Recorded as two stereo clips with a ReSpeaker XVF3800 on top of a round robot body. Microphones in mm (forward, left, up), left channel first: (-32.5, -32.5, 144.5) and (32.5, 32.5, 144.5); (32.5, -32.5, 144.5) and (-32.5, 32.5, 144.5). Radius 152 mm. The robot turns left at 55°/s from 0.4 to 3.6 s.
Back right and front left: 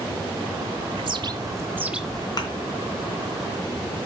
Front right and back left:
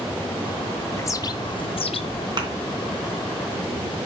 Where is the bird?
20° left, 0.9 m; by 2.3 s 50° right, 0.9 m.